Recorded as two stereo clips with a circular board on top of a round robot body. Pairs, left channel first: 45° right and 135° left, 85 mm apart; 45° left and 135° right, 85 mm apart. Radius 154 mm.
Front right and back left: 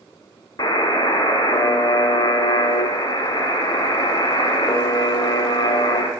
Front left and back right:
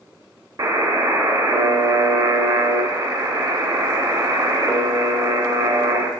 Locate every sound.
0.6 s a buzzer: 90° right, 1.2 m